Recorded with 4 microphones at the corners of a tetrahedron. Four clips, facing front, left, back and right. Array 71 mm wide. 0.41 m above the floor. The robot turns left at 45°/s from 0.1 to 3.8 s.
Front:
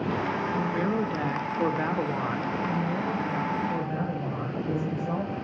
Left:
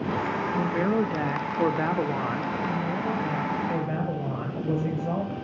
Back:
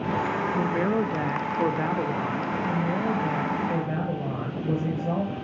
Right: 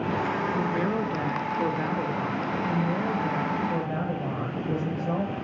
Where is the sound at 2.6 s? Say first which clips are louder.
Right 1 dB, back 2 dB; straight behind, 7.5 m; by 5.3 s 130° left, 7.5 m.